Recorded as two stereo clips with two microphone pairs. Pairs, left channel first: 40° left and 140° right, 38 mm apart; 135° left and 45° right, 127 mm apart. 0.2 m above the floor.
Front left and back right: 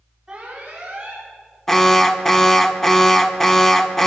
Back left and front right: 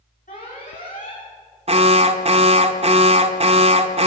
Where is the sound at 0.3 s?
145° left, 9.5 m.